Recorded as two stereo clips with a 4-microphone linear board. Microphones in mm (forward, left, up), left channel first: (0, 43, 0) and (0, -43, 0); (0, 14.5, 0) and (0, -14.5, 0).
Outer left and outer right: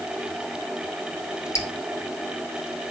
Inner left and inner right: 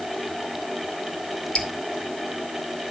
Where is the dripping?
35° left (ahead or behind), 1.8 m.